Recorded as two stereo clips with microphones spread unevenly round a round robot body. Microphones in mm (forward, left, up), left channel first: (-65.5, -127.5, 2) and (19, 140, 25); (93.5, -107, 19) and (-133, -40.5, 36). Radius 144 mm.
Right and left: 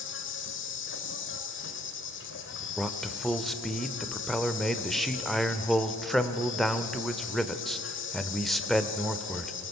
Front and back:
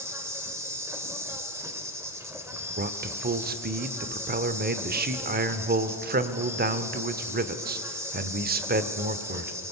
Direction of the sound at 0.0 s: 115° right.